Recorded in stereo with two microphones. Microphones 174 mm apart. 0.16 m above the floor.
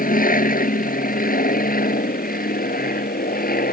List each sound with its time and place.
0.0 s an aircraft: 50° left (ahead or behind); by 3.8 s 55° left (ahead or behind)